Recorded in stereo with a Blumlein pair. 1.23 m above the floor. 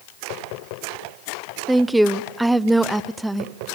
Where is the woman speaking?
5° right, 0.6 m.